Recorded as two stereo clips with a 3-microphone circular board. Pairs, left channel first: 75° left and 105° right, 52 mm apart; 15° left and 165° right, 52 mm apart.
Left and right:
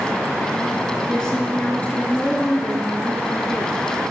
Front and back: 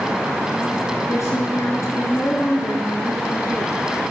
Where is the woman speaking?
5° right, 4 m; by 4.1 s 40° left, 5.5 m.